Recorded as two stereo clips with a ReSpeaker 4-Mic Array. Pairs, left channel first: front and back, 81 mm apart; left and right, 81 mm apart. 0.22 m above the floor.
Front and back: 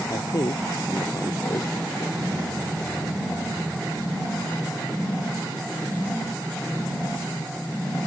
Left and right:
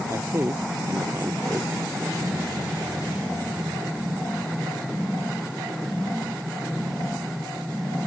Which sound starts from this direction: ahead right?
A man speaking, at 0.1 s.